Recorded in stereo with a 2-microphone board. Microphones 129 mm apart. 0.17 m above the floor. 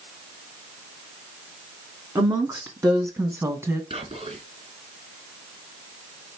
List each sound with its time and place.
2.1 s a woman speaking: 30° right (ahead or behind), 1.9 m; by 3.8 s 20° right (ahead or behind), 1.5 m
3.9 s whispering: 50° right (ahead or behind), 2.5 m